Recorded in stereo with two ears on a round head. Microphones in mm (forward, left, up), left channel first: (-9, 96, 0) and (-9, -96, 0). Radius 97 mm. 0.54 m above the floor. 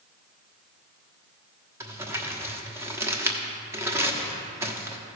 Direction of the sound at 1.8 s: 15° right (ahead or behind).